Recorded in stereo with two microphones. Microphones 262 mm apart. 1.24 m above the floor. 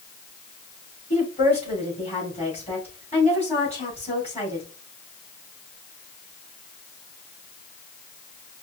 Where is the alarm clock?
I don't hear an alarm clock.